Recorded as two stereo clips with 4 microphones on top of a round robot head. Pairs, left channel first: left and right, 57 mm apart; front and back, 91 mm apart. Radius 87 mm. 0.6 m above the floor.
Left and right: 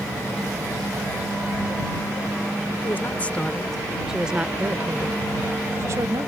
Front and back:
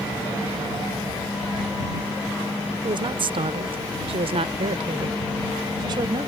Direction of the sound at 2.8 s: 150° left.